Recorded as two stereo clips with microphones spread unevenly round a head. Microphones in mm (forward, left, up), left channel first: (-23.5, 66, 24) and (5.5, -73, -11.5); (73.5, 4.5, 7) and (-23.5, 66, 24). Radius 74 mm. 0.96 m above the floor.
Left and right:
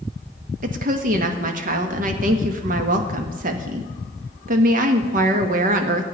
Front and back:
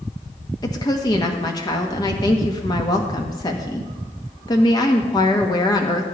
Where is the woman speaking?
90° right, 1.1 m.